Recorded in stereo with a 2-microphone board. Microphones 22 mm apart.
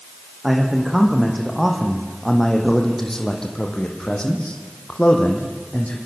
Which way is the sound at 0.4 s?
10° right (ahead or behind).